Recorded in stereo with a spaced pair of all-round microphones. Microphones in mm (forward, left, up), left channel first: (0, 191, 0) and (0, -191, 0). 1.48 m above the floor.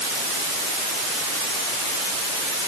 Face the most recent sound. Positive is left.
No sound to turn to.